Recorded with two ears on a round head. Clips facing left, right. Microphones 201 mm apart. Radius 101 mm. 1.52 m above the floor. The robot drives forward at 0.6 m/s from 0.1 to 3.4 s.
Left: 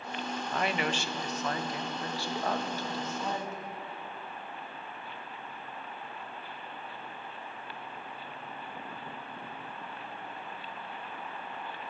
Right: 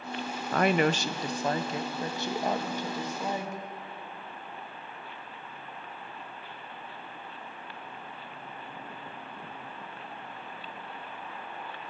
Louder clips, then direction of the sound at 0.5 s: Right 8 dB; 50° right (ahead or behind).